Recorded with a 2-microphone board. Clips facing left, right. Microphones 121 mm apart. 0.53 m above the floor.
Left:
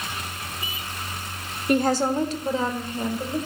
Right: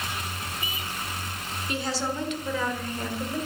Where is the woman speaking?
55° left (ahead or behind), 1.5 m; by 3.4 s 15° left (ahead or behind), 2.5 m.